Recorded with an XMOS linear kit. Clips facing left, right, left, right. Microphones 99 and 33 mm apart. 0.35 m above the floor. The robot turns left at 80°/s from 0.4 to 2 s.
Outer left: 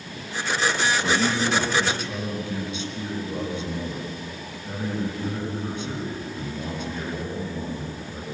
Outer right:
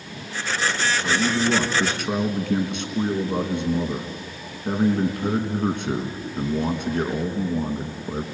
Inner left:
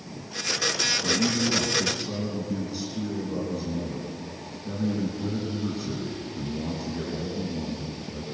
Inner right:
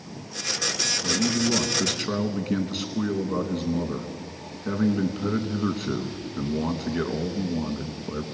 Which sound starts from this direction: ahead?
A man speaking, at 1.0 s.